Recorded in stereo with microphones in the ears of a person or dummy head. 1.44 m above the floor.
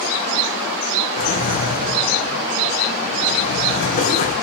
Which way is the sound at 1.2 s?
50° left (ahead or behind).